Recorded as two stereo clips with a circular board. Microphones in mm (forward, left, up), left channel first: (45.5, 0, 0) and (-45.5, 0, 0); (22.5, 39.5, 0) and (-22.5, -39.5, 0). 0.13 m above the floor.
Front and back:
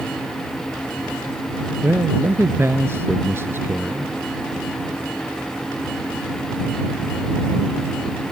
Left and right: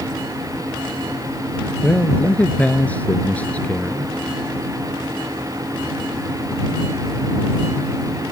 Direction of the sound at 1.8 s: 125° left.